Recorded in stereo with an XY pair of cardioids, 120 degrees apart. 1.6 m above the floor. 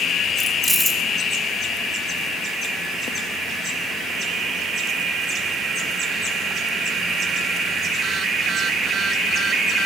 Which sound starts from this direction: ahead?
Keys jangling, at 0.4 s.